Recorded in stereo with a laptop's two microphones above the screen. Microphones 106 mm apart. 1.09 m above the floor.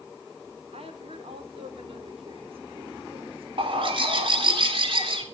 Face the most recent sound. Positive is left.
turn(degrees=-55)  # may be behind; listen again after turning